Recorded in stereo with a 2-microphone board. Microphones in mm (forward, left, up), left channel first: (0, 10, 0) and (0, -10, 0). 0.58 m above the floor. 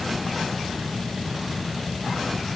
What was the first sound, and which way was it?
Only background noise.